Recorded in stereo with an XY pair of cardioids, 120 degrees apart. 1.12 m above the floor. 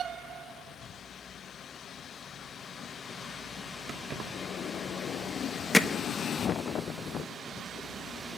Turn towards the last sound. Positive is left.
turn(degrees=20)